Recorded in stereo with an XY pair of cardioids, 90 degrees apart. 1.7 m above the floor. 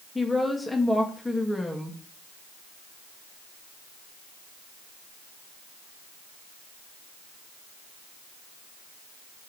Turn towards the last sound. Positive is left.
turn(degrees=15)